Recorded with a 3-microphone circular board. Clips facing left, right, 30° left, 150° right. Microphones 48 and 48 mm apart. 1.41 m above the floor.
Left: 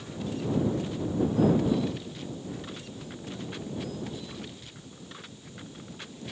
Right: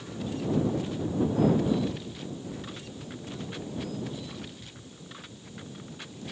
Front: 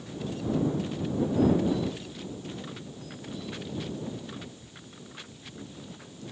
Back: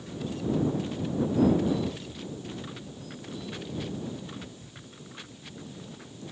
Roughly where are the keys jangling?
I don't hear keys jangling.